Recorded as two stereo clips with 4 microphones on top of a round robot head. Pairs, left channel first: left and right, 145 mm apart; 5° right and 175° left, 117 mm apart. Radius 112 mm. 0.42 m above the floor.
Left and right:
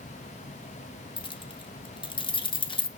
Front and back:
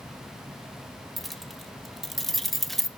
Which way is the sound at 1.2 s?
85° left.